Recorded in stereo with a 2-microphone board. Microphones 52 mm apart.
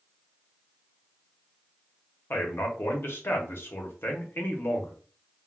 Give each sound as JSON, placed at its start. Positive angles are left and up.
{"t": 2.3, "sound": "a man speaking", "side_deg": 50, "distance_m": 0.8}